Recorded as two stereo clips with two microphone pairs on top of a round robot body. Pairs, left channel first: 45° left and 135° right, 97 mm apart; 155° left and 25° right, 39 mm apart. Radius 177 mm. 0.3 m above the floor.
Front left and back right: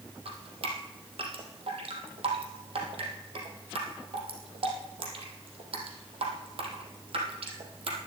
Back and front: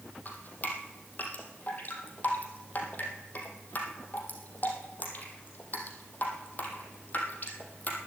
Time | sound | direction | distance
0.2 | dripping | 155° right | 3 m